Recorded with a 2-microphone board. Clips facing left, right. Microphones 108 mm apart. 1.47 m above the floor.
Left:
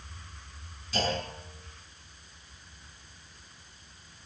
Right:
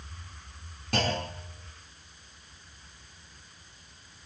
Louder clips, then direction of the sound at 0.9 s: Right 1 dB; 55° right (ahead or behind).